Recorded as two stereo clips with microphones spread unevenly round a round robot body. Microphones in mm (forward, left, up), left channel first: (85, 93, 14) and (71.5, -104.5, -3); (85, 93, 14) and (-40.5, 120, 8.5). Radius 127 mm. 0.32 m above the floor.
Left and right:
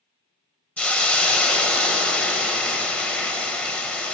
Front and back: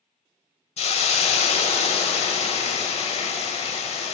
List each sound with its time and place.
0.8 s a hiss: straight ahead, 1.2 m